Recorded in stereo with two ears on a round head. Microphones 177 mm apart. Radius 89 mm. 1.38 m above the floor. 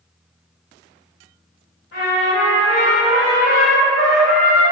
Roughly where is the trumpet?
Left.